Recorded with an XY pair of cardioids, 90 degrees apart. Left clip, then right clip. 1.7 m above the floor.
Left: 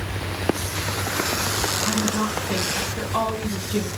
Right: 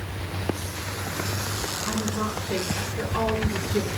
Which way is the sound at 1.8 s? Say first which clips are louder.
Left 4 dB; 65° left.